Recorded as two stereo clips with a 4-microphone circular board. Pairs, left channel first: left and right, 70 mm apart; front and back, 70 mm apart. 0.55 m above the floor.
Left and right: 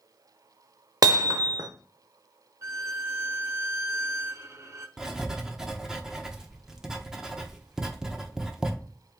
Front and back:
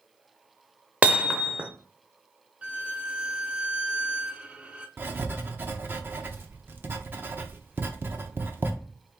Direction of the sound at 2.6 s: 115° right.